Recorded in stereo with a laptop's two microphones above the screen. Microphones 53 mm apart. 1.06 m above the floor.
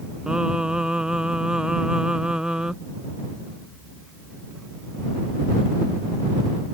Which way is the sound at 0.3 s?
15° right (ahead or behind).